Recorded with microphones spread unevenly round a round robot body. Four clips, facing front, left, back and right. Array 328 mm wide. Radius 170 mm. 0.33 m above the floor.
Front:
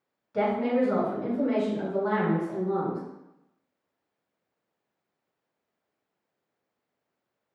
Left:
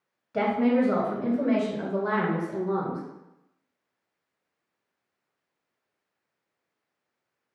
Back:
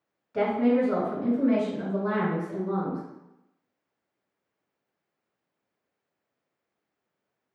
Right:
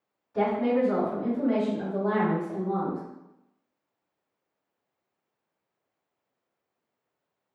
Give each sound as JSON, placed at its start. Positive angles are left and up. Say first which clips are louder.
{"t": 0.3, "sound": "a woman speaking", "louder": "left 2 dB, back 2 dB", "azimuth_deg": 90, "distance_m": 2.0}